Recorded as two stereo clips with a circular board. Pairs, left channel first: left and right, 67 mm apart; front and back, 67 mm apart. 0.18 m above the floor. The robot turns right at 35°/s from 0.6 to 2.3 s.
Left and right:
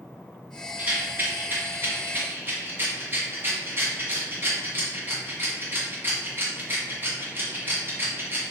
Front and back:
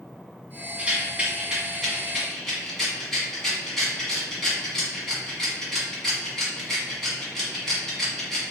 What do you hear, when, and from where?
0.8 s a rattle: 130° right, 1.4 m; by 8.5 s 80° right, 1.4 m